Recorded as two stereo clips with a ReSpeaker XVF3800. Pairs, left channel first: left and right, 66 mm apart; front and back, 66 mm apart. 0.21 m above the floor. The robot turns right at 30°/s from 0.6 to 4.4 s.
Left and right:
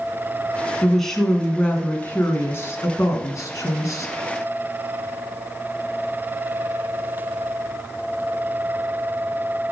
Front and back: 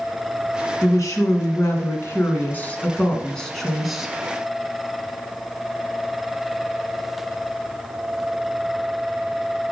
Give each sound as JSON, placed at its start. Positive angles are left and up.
{"t": 0.8, "sound": "a woman speaking", "azimuth_deg": 0, "distance_m": 1.7}